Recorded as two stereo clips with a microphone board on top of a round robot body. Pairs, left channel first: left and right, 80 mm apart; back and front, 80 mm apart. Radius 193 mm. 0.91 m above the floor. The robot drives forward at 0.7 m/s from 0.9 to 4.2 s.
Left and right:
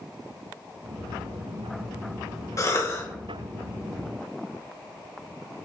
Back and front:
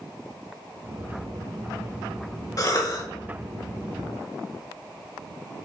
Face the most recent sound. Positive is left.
turn(degrees=155)